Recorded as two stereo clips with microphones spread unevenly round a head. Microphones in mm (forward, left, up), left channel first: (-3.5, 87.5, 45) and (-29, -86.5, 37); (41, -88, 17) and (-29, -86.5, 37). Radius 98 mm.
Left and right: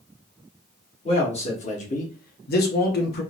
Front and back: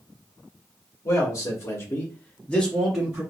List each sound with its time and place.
1.1 s a man speaking: 20° left, 1.8 m; by 3.2 s 105° left, 0.9 m